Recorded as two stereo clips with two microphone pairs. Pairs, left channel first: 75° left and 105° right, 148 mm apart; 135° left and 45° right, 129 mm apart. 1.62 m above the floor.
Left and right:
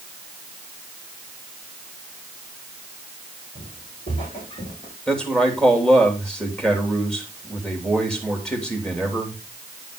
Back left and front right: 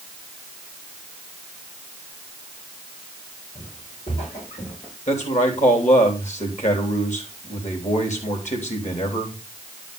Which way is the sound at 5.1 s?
160° left.